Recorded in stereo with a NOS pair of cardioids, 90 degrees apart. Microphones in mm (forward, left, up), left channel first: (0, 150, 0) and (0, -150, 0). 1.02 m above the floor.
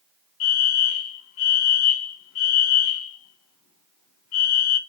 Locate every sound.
0.4 s a fire alarm: 60° left, 6 m